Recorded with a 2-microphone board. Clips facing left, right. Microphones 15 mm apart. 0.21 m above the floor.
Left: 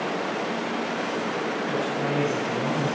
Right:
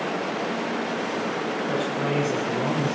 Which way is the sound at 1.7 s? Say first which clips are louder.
Right 2 dB; 60° right (ahead or behind).